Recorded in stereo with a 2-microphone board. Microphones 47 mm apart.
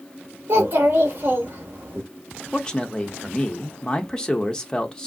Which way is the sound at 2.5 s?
15° left (ahead or behind).